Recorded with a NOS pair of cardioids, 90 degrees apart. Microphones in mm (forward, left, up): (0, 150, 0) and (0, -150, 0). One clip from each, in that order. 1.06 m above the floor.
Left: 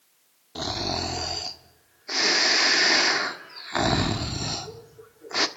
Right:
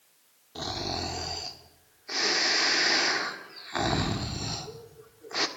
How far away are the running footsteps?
No running footsteps in this recording.